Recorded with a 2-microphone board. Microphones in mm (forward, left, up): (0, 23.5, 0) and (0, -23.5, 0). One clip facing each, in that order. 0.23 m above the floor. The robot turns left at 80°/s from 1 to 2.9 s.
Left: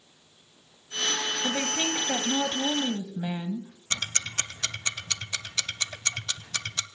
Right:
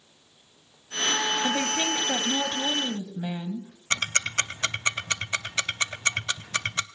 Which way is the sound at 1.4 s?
15° right (ahead or behind).